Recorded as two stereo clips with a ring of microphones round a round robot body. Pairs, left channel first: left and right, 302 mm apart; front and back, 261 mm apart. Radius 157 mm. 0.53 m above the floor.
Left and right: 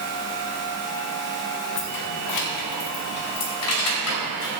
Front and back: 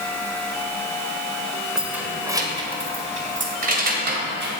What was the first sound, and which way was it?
Keys jangling, 95° left.